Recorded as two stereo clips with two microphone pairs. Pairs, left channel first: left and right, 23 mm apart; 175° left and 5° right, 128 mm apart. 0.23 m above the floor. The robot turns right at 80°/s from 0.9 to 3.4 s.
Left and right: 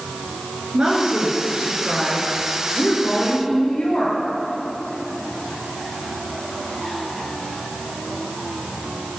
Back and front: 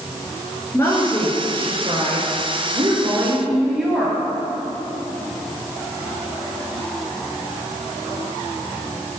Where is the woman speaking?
120° right, 4 m; by 4.2 s 80° left, 4 m.